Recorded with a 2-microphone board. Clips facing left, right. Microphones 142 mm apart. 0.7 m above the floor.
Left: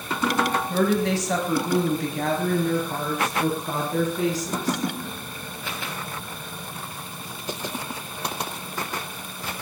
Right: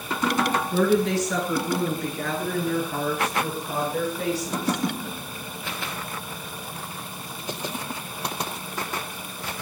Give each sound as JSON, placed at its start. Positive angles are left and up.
{"t": 0.7, "sound": "a woman speaking", "side_deg": 70, "distance_m": 6.0}